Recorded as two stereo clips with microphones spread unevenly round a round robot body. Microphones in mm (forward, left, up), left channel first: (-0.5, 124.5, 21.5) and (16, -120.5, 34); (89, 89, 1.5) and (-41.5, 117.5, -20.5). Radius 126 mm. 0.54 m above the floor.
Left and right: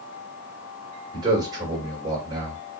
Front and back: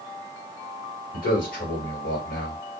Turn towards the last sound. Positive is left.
turn(degrees=-15)